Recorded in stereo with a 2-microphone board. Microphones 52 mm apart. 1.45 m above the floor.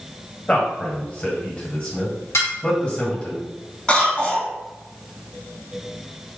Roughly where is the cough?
Centre.